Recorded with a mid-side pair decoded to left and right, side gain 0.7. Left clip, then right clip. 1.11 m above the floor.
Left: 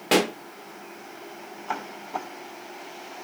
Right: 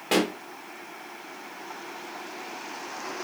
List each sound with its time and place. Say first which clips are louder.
0.1 s a pop: left 3 dB; 20° left, 0.6 m